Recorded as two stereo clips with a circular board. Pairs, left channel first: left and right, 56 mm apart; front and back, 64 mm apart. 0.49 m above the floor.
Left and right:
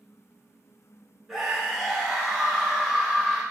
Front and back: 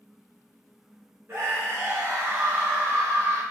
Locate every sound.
1.3 s a scream: straight behind, 1.2 m